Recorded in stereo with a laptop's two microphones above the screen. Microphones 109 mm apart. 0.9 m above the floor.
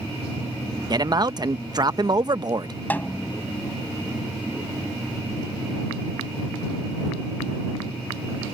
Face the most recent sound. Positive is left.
turn(degrees=15)  # may be behind; listen again after turning